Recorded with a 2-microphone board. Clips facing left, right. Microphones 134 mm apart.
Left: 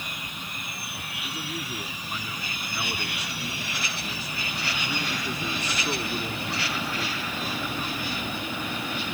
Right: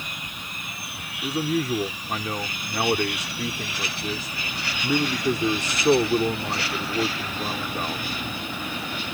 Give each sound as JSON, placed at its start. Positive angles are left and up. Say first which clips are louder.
{"t": 1.2, "sound": "a man speaking", "louder": "right 12 dB", "side_deg": -80}